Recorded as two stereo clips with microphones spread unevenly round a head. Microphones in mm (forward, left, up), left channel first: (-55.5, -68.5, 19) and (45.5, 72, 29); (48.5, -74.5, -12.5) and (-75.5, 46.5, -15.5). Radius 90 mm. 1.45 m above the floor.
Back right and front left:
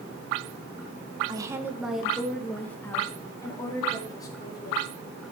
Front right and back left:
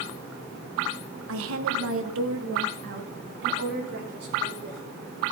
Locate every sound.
1.3 s a woman speaking: 120° left, 1.2 m; by 4.8 s 165° left, 4.5 m